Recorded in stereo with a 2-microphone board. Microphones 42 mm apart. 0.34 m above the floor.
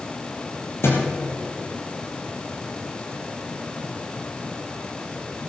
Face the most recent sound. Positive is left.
turn(degrees=75)  # may be behind; listen again after turning